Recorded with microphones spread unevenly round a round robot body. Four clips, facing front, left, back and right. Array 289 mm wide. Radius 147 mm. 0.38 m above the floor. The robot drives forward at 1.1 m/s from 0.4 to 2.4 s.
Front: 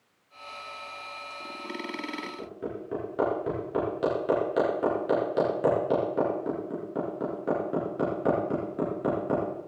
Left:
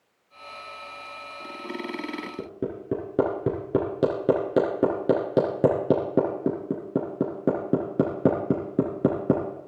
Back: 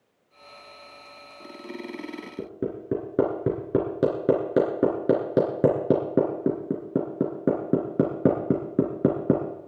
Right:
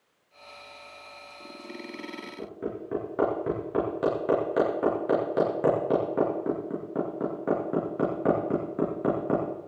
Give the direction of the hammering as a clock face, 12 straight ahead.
7 o'clock.